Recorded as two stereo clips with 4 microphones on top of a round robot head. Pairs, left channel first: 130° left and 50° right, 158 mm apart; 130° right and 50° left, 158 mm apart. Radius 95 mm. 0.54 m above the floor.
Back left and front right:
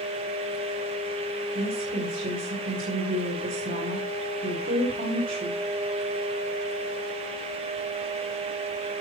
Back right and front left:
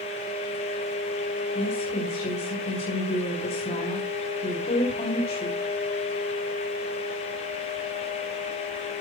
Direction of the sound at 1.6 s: 80° right.